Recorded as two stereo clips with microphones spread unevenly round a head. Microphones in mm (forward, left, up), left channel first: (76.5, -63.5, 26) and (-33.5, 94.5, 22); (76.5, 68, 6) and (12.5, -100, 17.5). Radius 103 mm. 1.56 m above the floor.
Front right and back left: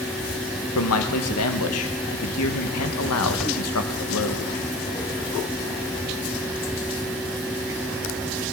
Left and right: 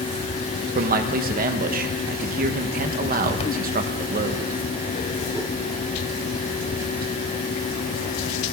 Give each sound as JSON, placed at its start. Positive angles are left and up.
{"t": 0.8, "sound": "a man speaking", "azimuth_deg": -75, "distance_m": 1.4}